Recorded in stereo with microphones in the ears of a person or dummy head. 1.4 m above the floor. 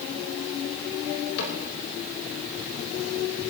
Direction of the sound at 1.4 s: 75° left (ahead or behind).